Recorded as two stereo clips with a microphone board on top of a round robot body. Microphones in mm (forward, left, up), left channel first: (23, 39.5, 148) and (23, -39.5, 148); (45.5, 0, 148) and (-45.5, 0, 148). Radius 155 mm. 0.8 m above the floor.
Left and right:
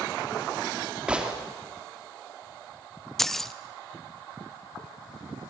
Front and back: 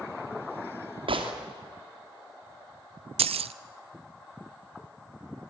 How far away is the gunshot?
About 2.5 m.